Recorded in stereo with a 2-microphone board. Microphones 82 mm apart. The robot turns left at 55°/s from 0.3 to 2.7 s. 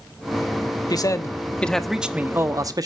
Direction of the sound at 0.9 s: 55° left.